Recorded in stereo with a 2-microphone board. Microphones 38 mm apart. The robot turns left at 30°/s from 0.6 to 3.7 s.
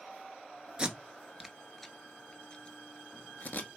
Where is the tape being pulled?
25° right (ahead or behind), 0.5 m; by 3.8 s 55° left (ahead or behind), 0.5 m.